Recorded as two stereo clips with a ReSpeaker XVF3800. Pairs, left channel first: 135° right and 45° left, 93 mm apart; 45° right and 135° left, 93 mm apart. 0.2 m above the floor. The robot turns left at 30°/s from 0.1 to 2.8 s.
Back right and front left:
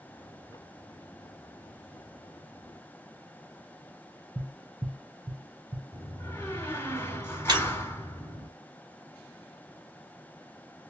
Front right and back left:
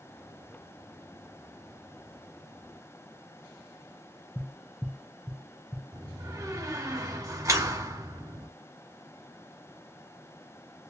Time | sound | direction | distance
4.3 | tapping | 35° left | 1.2 m
5.9 | a door slam | 170° left | 1.3 m
7.5 | breaking glass | 80° left | 1.3 m